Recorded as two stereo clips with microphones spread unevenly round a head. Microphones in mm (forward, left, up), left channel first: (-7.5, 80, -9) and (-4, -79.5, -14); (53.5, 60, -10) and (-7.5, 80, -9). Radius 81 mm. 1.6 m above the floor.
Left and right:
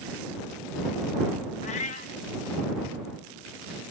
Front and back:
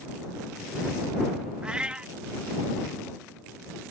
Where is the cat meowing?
95° left.